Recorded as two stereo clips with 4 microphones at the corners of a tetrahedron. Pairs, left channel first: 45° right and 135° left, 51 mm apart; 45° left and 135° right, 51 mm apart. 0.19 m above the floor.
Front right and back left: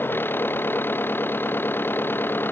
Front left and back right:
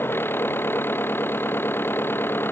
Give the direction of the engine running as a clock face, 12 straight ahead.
12 o'clock.